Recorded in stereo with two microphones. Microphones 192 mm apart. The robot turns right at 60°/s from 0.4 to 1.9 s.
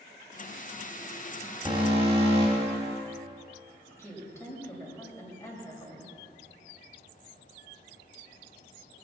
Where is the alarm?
25° right (ahead or behind), 2.5 m; by 3.0 s 30° right (ahead or behind), 2.5 m.